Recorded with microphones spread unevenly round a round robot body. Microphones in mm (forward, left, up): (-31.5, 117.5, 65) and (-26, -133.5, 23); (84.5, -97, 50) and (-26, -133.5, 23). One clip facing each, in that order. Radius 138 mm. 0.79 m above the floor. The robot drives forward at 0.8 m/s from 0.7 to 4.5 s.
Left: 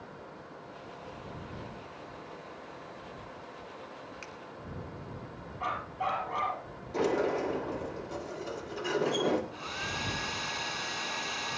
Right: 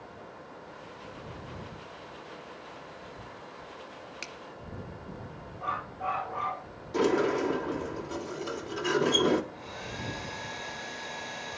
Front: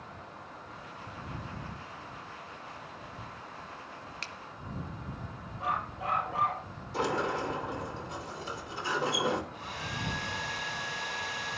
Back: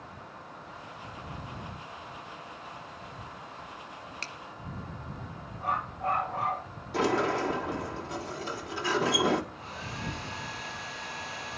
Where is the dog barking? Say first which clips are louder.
Left 1 dB, back 2 dB; 70° left, 7 m.